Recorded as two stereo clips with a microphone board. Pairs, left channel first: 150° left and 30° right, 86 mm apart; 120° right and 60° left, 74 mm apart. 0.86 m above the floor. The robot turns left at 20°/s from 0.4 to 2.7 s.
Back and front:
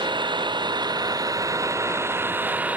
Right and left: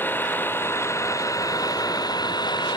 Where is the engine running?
55° right; by 2.8 s 100° right.